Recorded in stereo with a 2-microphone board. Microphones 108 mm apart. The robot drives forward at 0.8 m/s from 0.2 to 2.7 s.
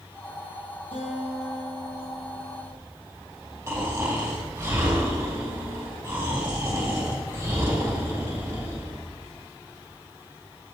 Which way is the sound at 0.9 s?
65° left (ahead or behind).